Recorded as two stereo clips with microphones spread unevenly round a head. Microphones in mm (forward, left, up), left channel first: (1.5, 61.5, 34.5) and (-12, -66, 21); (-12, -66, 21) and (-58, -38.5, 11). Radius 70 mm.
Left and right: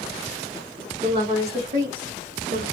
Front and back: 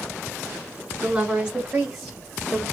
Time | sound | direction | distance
1.0 | a woman speaking | 135° right | 1.7 m